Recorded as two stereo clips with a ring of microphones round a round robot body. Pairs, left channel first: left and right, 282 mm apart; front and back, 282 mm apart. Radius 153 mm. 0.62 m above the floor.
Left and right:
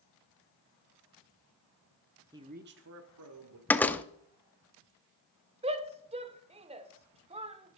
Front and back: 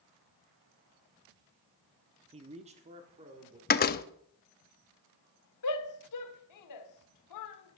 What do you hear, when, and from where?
2.3 s a man speaking: 150° right, 0.8 m; by 3.6 s 110° right, 1.9 m
3.7 s a door slam: 10° left, 0.7 m
5.6 s a shout: 20° right, 1.5 m